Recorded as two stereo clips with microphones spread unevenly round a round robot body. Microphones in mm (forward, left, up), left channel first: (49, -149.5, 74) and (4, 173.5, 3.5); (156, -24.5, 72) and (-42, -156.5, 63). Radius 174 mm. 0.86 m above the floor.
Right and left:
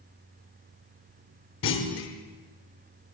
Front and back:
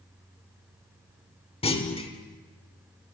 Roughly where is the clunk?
Ahead right.